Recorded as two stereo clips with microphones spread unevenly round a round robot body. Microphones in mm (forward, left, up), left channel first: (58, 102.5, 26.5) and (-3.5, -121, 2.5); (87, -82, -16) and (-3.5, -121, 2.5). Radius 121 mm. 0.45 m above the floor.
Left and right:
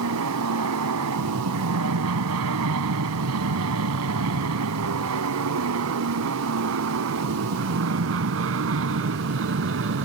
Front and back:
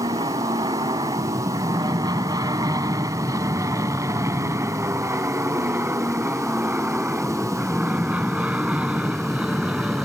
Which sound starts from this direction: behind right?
An aircraft, at 0.0 s.